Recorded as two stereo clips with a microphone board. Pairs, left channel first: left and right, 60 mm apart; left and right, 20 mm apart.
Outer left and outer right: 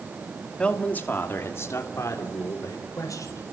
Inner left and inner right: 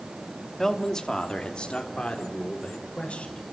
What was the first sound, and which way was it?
A man speaking, 20° left (ahead or behind).